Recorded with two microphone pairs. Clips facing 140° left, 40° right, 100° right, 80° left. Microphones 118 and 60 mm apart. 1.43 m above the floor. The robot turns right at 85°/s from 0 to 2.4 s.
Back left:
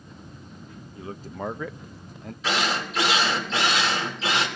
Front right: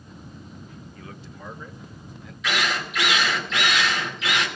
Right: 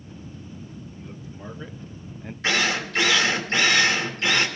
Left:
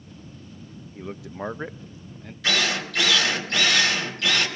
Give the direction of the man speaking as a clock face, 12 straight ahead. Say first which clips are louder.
Back left 11 dB, left 6 dB; 10 o'clock.